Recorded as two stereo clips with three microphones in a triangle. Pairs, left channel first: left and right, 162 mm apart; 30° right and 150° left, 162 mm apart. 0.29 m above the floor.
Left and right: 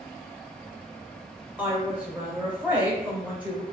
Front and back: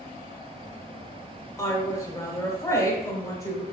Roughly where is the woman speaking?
Ahead right.